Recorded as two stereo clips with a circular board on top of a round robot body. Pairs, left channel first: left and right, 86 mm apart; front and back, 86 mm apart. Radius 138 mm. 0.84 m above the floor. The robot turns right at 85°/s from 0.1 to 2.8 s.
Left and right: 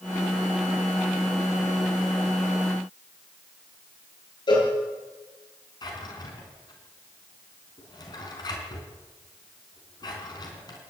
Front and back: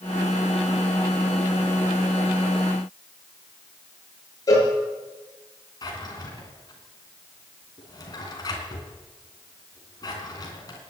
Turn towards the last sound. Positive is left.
turn(degrees=45)